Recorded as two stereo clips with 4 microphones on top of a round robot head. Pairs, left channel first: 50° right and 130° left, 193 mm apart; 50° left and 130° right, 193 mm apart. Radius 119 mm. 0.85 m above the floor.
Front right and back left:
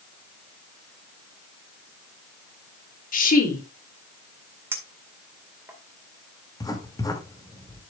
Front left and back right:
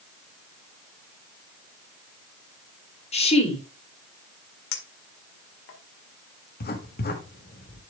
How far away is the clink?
About 1.9 m.